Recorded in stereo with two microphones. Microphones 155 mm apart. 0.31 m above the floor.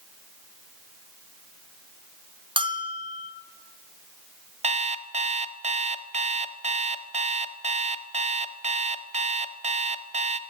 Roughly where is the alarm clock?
Right.